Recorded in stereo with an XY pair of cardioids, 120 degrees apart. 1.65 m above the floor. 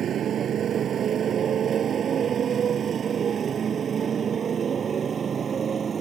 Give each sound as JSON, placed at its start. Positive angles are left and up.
{"t": 0.0, "sound": "a motorcycle", "azimuth_deg": -50}